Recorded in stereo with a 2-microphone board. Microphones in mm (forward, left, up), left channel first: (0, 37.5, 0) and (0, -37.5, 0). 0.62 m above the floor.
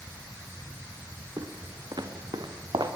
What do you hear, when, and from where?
1.4 s footsteps: 65° right (ahead or behind), 3 m; by 2.9 s 80° right, 4 m